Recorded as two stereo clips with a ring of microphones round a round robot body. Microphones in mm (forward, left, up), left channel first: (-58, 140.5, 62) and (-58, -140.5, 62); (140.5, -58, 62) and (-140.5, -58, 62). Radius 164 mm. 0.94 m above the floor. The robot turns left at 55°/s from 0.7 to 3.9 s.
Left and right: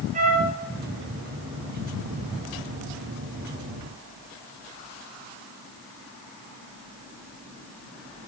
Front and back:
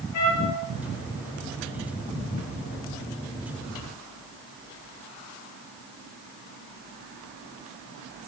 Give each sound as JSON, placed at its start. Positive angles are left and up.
{"t": 0.1, "sound": "a trumpet", "azimuth_deg": -20, "distance_m": 6.0}